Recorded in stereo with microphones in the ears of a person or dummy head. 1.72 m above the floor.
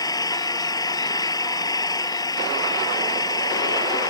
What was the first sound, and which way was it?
An engine running, 20° left (ahead or behind).